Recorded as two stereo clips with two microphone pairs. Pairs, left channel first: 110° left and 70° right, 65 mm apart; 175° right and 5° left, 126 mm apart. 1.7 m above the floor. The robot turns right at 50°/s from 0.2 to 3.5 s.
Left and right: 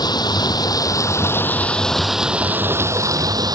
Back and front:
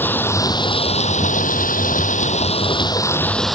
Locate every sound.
0.0 s running water: 110° left; by 3.6 s 85° right